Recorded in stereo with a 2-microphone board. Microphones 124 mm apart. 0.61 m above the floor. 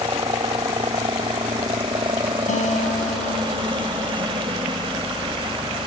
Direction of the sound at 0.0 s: 40° right (ahead or behind).